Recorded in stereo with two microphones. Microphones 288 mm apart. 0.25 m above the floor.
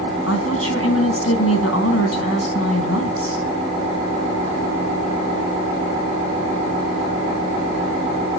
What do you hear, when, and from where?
0.3 s a woman speaking: 55° left (ahead or behind), 2.5 m